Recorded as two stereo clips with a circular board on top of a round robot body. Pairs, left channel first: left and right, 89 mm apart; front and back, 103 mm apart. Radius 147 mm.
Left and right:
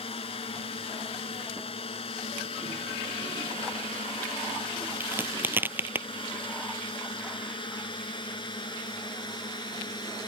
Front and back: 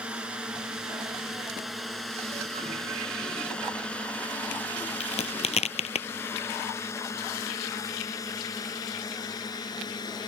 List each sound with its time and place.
0.0 s a drone: 100° left; by 10.3 s 50° left
5.0 s a crack: 20° right